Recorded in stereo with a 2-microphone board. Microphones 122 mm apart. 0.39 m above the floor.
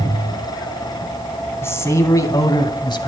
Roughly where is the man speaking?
Left.